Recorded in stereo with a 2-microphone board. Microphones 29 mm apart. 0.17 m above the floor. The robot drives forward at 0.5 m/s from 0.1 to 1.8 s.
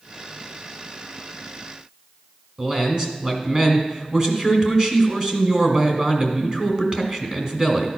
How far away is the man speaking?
About 1.6 m.